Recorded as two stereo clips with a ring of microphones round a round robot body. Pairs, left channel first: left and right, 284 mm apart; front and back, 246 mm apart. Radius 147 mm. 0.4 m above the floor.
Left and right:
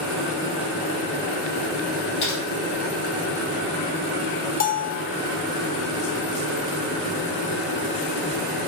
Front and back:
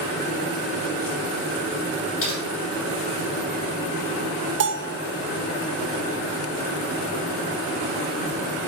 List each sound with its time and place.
2.2 s typing on a keyboard: 35° left, 3.5 m
4.6 s a bell: 145° left, 0.7 m